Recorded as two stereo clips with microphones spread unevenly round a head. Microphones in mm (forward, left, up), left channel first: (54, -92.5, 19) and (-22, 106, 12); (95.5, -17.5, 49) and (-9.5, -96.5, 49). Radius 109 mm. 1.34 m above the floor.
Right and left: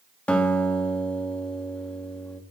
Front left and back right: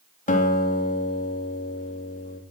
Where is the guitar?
15° left, 3 m.